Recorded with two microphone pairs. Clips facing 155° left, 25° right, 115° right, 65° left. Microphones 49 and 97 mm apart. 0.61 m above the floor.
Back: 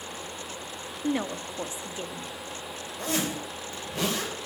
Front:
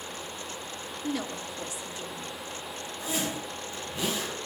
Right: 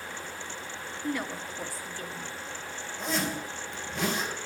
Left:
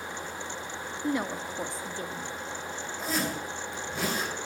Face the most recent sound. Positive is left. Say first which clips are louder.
# back 3 dB, right 1 dB
turn(degrees=155)